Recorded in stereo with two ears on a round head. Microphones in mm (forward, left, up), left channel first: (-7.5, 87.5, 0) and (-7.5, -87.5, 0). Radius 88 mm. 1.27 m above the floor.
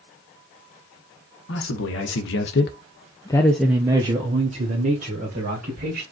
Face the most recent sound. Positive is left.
turn(degrees=-45)  # may be behind; listen again after turning